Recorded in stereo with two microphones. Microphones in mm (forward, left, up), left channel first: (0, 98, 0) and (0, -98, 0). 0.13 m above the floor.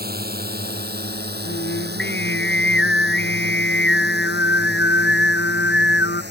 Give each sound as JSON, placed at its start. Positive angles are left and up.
{"t": 0.0, "sound": "a drone", "side_deg": -60}
{"t": 1.4, "sound": "singing", "side_deg": 85}